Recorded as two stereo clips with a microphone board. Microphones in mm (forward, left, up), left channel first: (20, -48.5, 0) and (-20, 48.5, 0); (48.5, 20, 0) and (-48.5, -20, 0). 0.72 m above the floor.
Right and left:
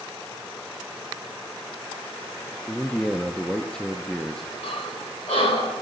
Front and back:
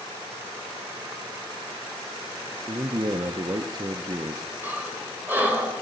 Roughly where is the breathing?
Right.